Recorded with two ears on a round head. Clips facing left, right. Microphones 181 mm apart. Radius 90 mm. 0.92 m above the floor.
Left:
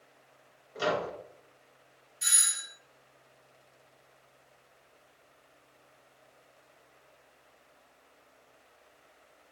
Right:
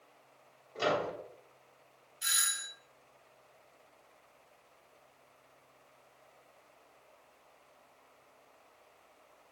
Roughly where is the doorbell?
Left.